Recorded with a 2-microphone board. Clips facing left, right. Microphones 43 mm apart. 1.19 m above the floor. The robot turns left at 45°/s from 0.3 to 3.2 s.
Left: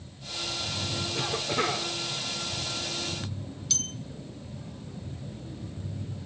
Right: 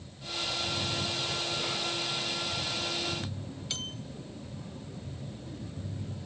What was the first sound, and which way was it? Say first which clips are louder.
A cough: left 5 dB; 95° left.